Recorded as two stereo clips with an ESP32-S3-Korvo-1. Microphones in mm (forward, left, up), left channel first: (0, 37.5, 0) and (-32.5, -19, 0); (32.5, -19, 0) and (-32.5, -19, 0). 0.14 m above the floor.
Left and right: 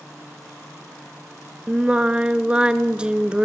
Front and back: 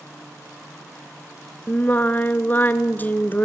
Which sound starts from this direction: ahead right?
Singing, at 1.7 s.